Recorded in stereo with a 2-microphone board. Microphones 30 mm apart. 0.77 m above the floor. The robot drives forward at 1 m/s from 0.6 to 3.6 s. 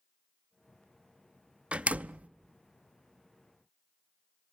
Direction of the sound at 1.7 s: 45° right (ahead or behind).